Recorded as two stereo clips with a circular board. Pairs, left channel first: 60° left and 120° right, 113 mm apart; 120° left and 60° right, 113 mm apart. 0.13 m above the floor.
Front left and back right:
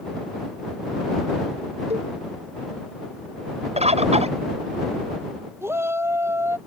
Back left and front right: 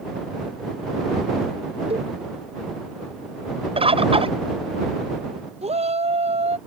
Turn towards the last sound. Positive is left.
turn(degrees=-55)